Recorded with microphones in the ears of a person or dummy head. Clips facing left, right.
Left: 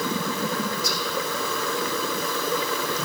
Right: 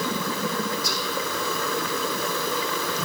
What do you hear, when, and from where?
0.8 s whispering: 75° left (ahead or behind), 2.5 m